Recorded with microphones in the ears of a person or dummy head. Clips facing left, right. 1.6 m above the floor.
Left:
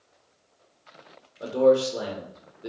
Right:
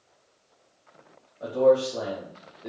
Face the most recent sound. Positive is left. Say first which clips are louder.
# left 1 dB
turn(degrees=30)  # may be behind; listen again after turning